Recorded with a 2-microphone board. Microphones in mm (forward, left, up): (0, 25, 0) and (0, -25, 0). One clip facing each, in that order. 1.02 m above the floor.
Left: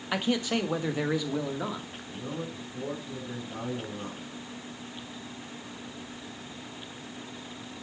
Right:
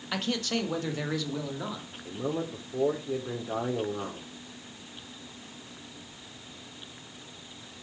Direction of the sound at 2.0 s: 70° right (ahead or behind).